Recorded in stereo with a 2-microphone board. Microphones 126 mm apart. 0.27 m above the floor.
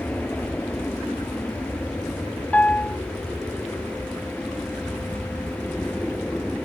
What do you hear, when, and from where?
0.0 s an aircraft: 10° left (ahead or behind); by 6.7 s 5° left (ahead or behind)
2.5 s a piano: 10° left (ahead or behind)